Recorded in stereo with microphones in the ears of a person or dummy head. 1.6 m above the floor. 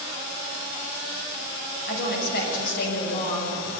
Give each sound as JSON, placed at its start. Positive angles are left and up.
{"t": 1.9, "sound": "a woman speaking", "side_deg": 65, "distance_m": 7.0}